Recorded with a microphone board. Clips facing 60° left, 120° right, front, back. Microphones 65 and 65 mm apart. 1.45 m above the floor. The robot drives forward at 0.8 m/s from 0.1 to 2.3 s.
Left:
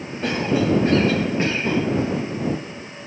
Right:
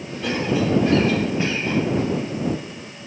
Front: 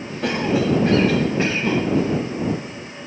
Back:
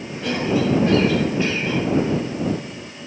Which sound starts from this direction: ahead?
A cough, at 0.2 s.